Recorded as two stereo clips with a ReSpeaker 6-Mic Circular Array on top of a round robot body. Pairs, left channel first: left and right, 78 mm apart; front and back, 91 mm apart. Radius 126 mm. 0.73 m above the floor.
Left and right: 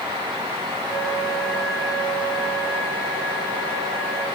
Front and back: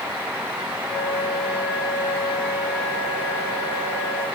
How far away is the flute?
About 3.5 m.